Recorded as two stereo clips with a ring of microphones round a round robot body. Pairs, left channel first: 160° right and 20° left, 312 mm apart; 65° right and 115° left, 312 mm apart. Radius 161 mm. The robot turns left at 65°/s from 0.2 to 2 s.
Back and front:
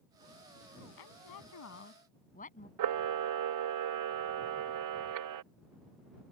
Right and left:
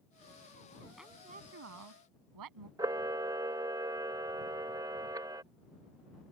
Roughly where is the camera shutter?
Ahead left.